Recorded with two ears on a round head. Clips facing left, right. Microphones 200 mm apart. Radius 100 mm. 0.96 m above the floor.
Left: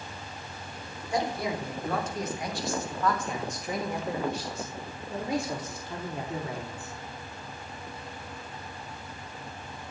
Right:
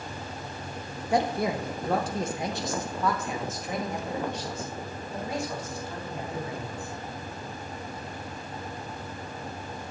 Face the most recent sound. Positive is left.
turn(degrees=25)  # may be behind; listen again after turning